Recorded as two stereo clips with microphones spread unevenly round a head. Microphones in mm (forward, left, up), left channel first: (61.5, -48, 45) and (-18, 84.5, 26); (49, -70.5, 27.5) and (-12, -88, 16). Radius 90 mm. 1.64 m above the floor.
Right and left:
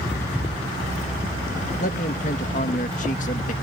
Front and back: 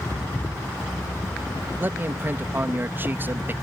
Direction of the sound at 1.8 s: 105° right.